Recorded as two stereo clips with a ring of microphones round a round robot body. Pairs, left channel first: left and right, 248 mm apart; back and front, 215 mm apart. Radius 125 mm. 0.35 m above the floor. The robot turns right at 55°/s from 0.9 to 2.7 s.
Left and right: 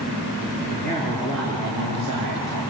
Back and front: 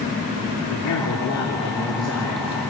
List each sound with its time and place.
0.7 s a man speaking: 155° right, 5.5 m; by 2.6 s 60° right, 5.5 m